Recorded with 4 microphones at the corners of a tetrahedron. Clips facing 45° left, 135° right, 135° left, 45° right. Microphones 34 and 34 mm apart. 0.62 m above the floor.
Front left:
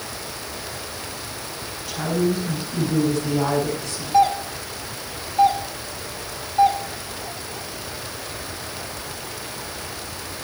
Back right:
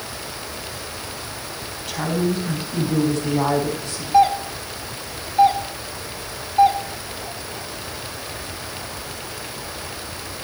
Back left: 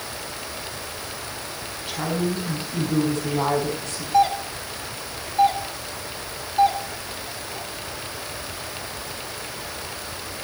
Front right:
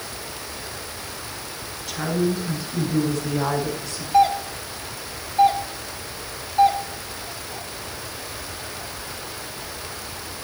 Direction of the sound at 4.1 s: 140° right.